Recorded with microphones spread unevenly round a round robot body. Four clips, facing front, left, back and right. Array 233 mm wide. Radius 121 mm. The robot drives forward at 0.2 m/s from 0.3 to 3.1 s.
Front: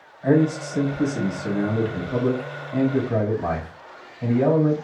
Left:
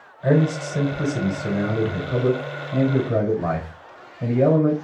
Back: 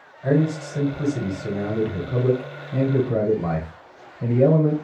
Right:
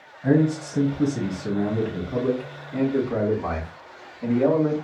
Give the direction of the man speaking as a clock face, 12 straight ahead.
9 o'clock.